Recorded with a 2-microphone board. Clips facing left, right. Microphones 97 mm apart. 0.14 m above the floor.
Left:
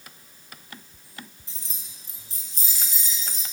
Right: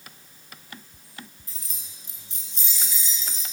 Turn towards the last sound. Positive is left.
turn(degrees=50)  # may be behind; listen again after turning